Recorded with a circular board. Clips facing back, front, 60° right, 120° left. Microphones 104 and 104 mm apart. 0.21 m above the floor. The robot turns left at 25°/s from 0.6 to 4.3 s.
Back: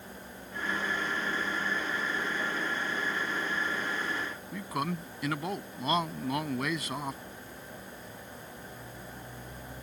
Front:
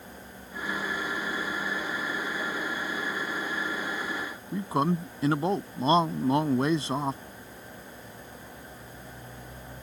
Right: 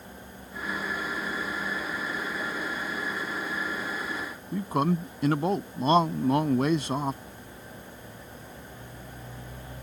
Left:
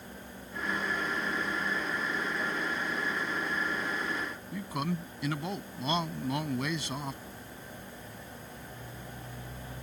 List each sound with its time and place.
4.5 s a man speaking: 45° right